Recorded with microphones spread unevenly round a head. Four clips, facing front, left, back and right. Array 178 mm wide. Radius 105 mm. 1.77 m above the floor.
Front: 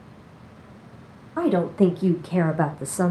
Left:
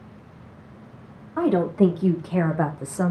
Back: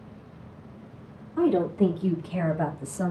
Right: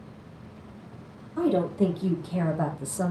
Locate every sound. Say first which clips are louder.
1.4 s a woman speaking: left 4 dB, front 2 dB; 35° left, 2.5 m; by 3.1 s 25° left, 1.4 m